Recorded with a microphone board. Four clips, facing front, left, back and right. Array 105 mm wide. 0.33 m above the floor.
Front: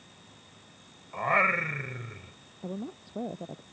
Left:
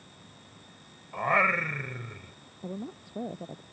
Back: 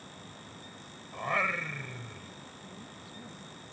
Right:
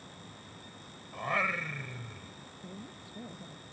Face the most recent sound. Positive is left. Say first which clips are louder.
# left 10 dB, front 10 dB
turn(degrees=40)